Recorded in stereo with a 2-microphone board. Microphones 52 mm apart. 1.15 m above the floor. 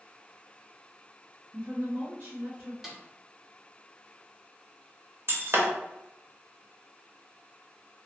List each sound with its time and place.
1.5 s a woman speaking: 75° right (ahead or behind), 1.4 m; by 2.7 s 30° right (ahead or behind), 2.5 m
2.8 s a snare drum: 5° right (ahead or behind), 0.7 m
5.3 s breaking glass: 50° right (ahead or behind), 0.8 m